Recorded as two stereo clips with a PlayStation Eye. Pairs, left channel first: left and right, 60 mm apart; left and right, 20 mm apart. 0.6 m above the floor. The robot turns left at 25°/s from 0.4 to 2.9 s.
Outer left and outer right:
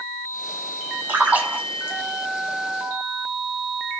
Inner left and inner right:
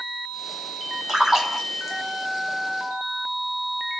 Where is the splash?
25° right (ahead or behind), 1.4 m; by 2.0 s 15° right (ahead or behind), 1.4 m.